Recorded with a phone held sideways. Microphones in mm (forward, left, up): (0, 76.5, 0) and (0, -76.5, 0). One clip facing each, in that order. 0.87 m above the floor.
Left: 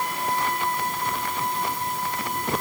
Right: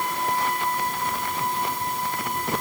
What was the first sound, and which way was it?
Only background noise.